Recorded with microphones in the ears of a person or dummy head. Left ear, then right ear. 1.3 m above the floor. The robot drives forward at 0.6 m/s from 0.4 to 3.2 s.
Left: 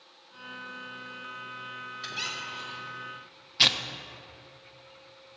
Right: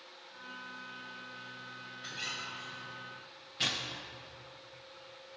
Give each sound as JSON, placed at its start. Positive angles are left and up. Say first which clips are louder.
{"t": 2.0, "sound": "a squeak", "louder": "left 5 dB", "side_deg": 60, "distance_m": 1.7}
{"t": 3.6, "sound": "tearing paper", "louder": "left 11 dB", "side_deg": 45, "distance_m": 0.6}